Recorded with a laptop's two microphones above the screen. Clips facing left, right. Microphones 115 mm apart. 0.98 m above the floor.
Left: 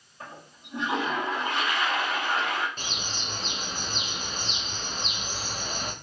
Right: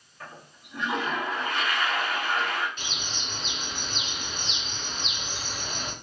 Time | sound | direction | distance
0.2 | a toilet flushing | 25° left (ahead or behind) | 2 m
2.8 | a bird | 40° left (ahead or behind) | 0.6 m